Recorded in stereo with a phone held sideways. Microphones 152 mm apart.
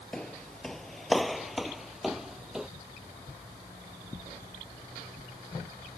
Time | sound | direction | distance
0.1 | footsteps | 5° left (ahead or behind) | ?